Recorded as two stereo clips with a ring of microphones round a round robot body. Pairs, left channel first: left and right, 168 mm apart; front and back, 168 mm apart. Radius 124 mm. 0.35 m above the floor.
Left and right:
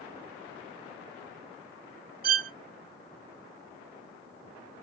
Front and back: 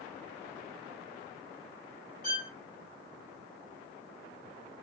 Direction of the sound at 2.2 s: 50° right.